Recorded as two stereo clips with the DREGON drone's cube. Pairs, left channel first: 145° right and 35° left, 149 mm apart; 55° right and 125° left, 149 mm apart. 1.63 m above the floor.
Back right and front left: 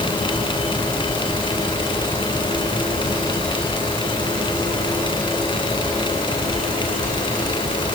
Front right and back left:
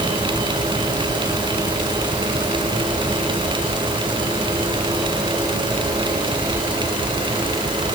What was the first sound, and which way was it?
Only background noise.